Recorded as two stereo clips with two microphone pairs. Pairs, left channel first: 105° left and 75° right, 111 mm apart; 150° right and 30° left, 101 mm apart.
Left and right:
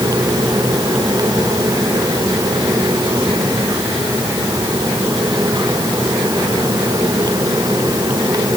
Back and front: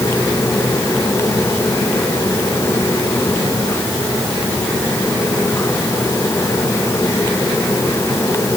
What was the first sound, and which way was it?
Only background noise.